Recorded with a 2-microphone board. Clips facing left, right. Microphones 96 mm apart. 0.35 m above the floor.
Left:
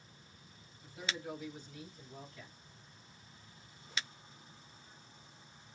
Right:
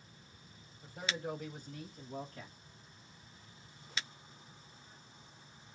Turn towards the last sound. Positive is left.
turn(degrees=-60)  # may be behind; listen again after turning